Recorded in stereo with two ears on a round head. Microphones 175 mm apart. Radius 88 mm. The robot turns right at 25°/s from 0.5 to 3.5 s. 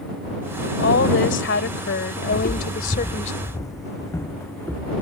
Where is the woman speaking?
75° left; by 3.3 s 140° left.